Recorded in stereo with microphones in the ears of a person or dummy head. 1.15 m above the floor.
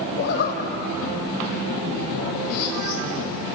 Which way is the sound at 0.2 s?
55° left (ahead or behind).